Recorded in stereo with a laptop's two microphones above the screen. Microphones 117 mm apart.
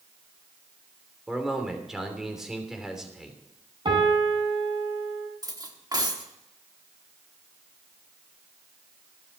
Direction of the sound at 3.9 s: 40° right (ahead or behind).